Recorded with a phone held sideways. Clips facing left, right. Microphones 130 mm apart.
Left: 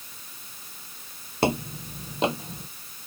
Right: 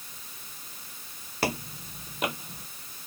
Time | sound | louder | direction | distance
1.4 | footsteps | left 6 dB | 25° left (ahead or behind) | ?